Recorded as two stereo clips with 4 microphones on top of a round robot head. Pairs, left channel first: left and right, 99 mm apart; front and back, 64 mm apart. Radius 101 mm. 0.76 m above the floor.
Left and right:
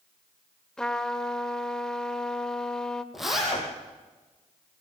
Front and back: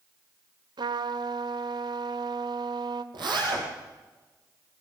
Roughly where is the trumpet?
Behind.